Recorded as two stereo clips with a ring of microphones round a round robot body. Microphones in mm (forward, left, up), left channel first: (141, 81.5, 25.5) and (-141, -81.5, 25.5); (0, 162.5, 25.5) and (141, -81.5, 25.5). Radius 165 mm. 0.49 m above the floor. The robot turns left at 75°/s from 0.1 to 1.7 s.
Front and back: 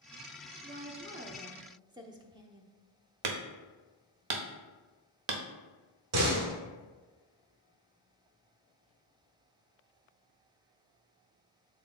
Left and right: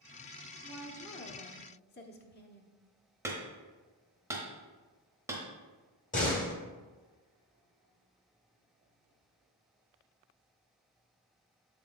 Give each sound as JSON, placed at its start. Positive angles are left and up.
{"t": 0.6, "sound": "a woman speaking", "azimuth_deg": -140, "distance_m": 0.8}
{"t": 3.2, "sound": "hammering", "azimuth_deg": -140, "distance_m": 0.8}
{"t": 6.1, "sound": "a door slam", "azimuth_deg": 180, "distance_m": 1.1}